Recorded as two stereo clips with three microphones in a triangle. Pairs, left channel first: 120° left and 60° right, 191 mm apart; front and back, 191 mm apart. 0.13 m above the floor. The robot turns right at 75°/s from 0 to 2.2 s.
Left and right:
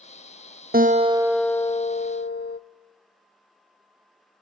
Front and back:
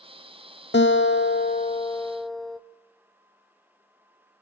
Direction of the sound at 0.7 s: 20° right.